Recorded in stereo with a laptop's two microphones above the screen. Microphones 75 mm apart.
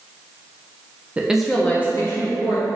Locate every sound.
1.2 s a woman speaking: 15° right (ahead or behind), 0.6 m; by 2.7 s 50° left (ahead or behind), 1.1 m